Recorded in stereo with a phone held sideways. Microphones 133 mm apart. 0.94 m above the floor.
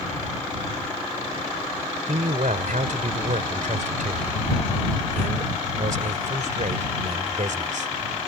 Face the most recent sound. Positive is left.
turn(degrees=-75)  # may be behind; listen again after turning